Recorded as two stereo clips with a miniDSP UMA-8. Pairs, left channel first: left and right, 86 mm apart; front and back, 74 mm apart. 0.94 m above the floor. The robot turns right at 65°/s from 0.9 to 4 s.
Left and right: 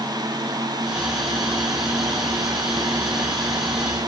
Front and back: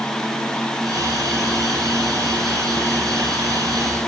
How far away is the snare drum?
I don't hear a snare drum.